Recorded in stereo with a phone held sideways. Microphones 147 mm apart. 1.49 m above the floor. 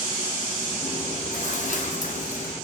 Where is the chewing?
55° left (ahead or behind), 0.9 m.